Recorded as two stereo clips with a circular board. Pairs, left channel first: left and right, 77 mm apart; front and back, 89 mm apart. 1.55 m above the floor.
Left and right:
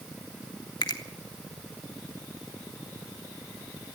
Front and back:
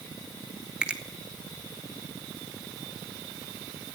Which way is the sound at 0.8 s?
105° left.